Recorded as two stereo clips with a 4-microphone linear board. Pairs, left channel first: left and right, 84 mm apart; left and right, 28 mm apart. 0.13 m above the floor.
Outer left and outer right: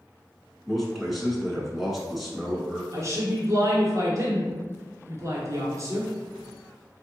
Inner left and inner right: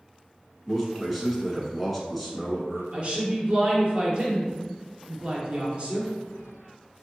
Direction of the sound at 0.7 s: Centre (ahead or behind).